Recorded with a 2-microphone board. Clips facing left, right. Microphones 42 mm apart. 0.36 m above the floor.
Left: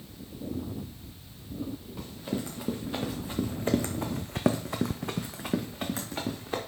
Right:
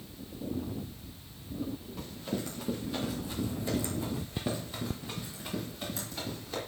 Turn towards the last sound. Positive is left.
turn(degrees=45)  # may be behind; listen again after turning